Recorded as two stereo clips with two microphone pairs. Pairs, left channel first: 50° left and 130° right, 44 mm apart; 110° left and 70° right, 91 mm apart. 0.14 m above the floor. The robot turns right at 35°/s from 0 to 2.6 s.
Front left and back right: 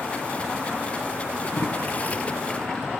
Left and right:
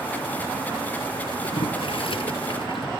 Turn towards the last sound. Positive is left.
turn(degrees=125)